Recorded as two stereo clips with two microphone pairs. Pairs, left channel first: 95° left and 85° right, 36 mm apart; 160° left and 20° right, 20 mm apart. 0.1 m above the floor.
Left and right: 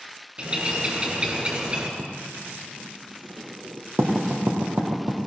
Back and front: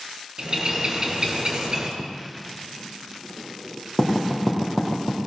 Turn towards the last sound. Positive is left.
turn(degrees=-110)